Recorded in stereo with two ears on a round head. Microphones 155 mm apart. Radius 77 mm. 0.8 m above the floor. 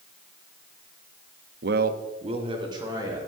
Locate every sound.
1.6 s a man speaking: 65° right (ahead or behind), 0.7 m; by 3.2 s 20° right (ahead or behind), 2.5 m